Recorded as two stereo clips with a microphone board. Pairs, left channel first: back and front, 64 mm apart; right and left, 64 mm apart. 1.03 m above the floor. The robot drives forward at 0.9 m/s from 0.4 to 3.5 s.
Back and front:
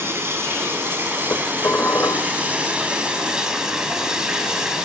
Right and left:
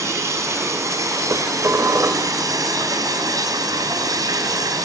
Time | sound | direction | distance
0.0 | running water | 50° left | 6 m
1.3 | dishes clattering | 125° left | 2.5 m